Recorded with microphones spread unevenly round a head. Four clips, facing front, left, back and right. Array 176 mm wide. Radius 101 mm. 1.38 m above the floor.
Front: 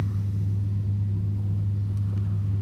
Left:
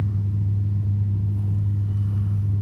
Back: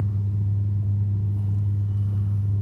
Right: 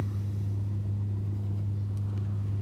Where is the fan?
135° left, 2.5 m.